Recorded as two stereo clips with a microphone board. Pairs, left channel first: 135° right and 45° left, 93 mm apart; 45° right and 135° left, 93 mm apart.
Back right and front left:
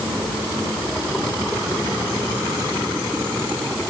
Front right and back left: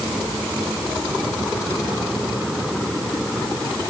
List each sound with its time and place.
Only background noise.